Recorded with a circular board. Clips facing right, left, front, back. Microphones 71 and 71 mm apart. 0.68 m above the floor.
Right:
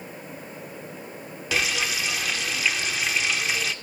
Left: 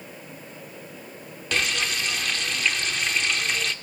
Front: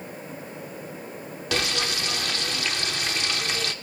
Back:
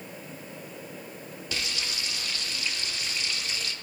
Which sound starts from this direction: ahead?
Frying, at 1.5 s.